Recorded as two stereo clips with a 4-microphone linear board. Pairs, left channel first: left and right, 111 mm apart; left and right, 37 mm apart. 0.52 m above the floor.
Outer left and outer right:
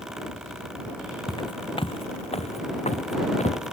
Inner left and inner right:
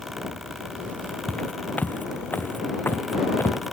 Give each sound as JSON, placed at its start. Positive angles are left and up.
{"t": 1.3, "sound": "footsteps", "side_deg": 40}